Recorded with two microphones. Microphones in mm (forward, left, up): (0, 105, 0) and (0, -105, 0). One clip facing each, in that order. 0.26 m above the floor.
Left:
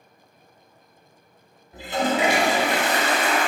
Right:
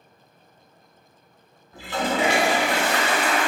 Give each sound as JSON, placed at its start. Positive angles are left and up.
{"t": 1.7, "sound": "a toilet flushing", "side_deg": 20, "distance_m": 0.7}